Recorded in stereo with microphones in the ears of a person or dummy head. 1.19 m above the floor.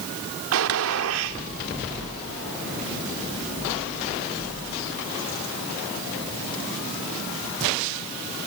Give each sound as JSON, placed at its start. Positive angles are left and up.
{"t": 0.5, "sound": "a gunshot", "side_deg": -75, "distance_m": 1.8}